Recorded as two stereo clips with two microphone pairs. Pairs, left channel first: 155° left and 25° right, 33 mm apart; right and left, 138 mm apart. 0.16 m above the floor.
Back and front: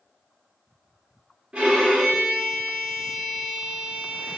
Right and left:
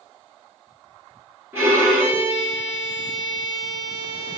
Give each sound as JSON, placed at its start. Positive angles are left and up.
{"t": 1.5, "sound": "a violin", "azimuth_deg": 25, "distance_m": 2.0}